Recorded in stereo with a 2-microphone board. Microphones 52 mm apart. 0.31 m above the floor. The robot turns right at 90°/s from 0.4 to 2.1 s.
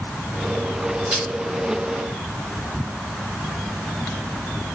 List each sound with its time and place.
1.1 s crushing: 20° right (ahead or behind), 1.7 m; by 1.3 s 5° right (ahead or behind), 1.7 m